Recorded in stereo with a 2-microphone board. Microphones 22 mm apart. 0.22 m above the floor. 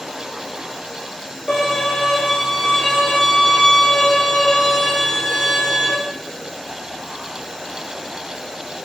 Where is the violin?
50° left (ahead or behind), 6 m.